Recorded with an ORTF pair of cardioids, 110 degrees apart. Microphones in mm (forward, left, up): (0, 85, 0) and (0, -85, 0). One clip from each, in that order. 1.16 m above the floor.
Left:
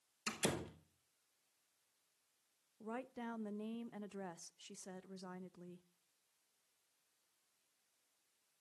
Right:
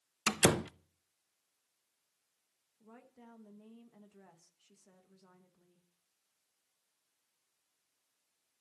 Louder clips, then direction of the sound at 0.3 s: Right 11 dB; 65° right.